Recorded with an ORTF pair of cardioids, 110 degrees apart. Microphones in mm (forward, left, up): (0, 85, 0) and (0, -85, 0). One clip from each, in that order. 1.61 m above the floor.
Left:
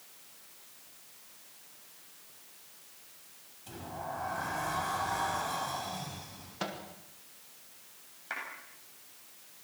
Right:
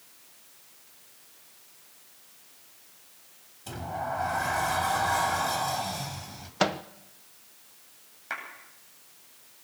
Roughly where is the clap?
Ahead.